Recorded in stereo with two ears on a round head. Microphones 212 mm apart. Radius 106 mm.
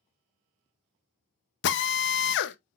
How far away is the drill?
About 0.6 m.